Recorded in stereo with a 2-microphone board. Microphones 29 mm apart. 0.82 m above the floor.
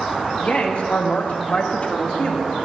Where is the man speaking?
45° left (ahead or behind), 1.3 m; by 2.5 s 30° left (ahead or behind), 1.9 m.